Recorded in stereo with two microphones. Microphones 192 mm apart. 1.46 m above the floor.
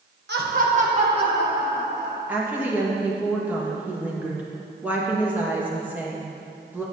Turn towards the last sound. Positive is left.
turn(degrees=-10)  # may be behind; listen again after turning